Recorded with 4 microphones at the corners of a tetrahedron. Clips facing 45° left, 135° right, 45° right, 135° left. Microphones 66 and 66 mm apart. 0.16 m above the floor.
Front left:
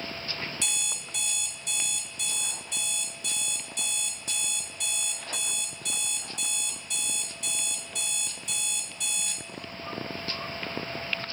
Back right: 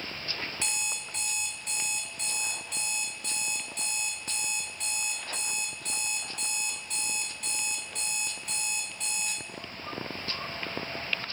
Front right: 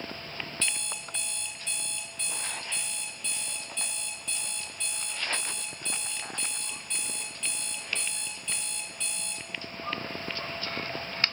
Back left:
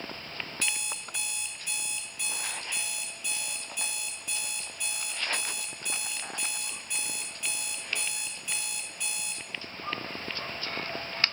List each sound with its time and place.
0.6 s an alarm clock: 155° right, 0.6 m